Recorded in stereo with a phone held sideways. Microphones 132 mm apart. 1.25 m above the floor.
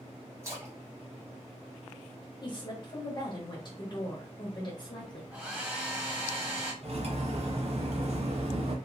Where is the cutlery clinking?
55° right (ahead or behind), 0.6 m.